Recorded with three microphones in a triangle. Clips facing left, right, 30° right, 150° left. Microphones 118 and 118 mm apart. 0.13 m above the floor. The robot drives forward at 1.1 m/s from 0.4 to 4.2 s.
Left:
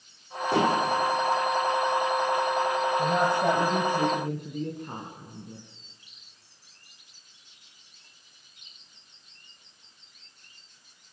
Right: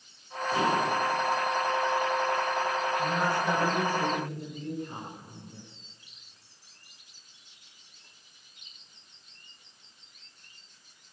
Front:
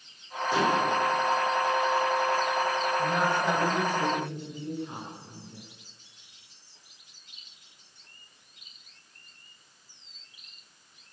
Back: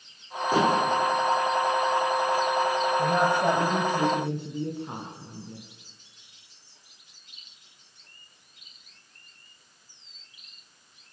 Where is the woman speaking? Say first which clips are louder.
Left 4 dB, back 4 dB; 100° left, 4.5 m; by 5.6 s 120° left, 5 m.